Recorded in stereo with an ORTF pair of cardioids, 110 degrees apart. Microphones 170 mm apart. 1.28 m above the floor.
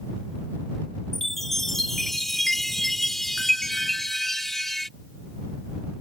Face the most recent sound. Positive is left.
turn(degrees=0)